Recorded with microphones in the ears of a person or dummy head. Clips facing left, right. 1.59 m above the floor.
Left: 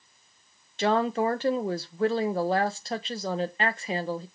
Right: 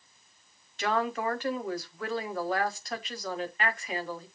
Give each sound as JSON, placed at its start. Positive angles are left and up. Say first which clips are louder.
{"t": 0.8, "sound": "a woman speaking", "louder": "left 5 dB", "side_deg": 25, "distance_m": 0.9}